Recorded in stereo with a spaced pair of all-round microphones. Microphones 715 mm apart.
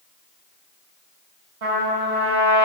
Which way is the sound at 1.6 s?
45° right (ahead or behind).